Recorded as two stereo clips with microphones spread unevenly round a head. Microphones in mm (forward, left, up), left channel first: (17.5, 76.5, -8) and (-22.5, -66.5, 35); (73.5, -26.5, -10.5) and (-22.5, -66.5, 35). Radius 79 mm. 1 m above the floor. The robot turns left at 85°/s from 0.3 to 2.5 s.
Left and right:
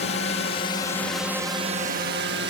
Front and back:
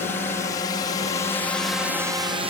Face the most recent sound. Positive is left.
turn(degrees=-115)